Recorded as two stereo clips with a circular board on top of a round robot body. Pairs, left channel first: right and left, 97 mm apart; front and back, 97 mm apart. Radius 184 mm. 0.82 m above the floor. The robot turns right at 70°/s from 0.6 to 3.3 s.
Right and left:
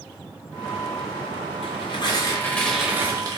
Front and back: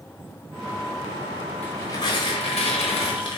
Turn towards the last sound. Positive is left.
turn(degrees=40)